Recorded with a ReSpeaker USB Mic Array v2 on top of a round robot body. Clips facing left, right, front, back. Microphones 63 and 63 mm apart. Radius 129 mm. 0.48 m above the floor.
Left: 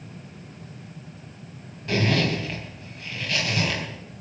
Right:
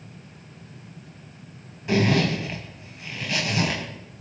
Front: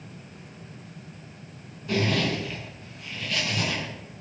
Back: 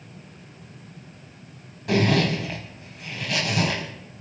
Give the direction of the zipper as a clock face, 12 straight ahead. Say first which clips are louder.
Right 2 dB, back 4 dB; 5 o'clock.